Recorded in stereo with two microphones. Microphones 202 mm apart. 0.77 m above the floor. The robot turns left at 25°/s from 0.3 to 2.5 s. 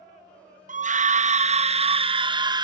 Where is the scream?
100° right, 0.6 m; by 2.6 s 145° right, 0.6 m.